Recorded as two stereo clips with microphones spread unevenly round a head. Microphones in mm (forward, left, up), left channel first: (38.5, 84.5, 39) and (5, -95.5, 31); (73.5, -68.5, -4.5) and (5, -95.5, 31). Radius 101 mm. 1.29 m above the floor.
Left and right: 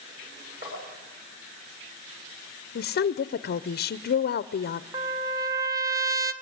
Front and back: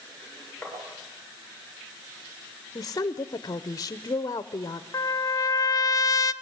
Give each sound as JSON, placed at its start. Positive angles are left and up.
{"t": 0.6, "sound": "tapping", "azimuth_deg": -60, "distance_m": 9.0}
{"t": 2.8, "sound": "a woman speaking", "azimuth_deg": 50, "distance_m": 0.7}
{"t": 4.9, "sound": "a trumpet", "azimuth_deg": -30, "distance_m": 1.2}